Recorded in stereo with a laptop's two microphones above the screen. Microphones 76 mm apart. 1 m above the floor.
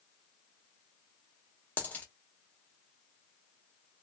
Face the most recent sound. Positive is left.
turn(degrees=20)  # may be behind; listen again after turning